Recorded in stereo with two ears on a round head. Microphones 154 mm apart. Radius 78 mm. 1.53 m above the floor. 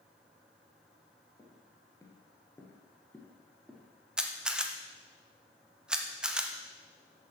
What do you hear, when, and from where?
1.4 s footsteps: 20° left (ahead or behind), 2 m; by 3.9 s centre (ahead or behind), 1.9 m
4.2 s a camera shutter: 5° right (ahead or behind), 0.6 m